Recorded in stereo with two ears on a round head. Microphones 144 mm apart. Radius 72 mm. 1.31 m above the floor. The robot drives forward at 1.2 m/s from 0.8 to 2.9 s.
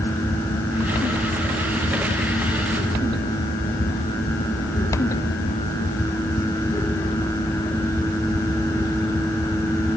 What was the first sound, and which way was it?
Only background noise.